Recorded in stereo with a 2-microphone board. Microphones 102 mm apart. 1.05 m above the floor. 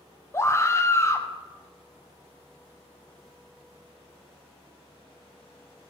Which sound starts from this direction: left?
A scream, at 0.3 s.